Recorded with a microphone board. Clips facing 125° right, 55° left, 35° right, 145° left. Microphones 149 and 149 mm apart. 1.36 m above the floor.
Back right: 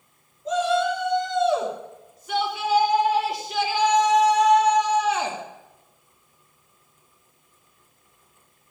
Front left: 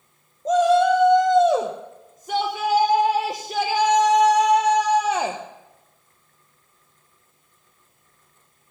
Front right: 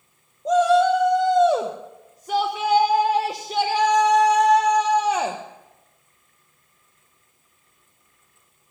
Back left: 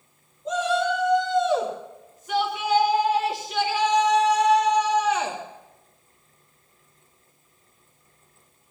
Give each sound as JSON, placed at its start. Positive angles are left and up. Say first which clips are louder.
{"t": 0.5, "sound": "a shout", "louder": "front left 6 dB, front right 8 dB", "azimuth_deg": 15, "distance_m": 1.2}